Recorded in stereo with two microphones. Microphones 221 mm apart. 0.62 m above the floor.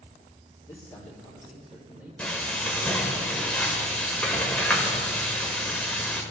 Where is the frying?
5° left (ahead or behind), 1.1 m.